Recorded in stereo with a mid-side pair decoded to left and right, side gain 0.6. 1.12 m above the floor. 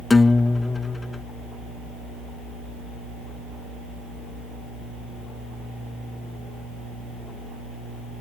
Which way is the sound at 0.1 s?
20° left.